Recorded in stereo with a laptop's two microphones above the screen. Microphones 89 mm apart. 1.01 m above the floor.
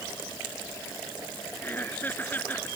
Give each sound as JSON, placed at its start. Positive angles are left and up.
{"t": 1.6, "sound": "laughter", "side_deg": 20}